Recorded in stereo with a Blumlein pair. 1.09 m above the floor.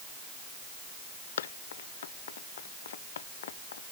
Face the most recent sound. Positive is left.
turn(degrees=60)